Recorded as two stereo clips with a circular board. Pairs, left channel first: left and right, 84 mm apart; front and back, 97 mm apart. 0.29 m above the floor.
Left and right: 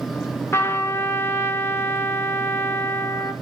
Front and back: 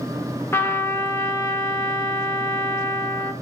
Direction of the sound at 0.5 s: 50° left.